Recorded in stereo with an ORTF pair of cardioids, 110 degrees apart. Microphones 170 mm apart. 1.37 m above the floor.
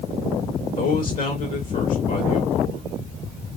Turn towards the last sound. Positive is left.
turn(degrees=55)